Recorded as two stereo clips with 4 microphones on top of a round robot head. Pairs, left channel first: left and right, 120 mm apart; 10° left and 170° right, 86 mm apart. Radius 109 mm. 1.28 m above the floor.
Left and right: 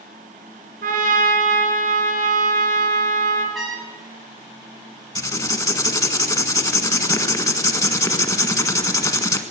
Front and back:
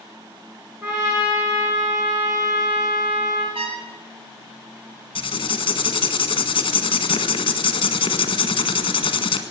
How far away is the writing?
About 1.6 m.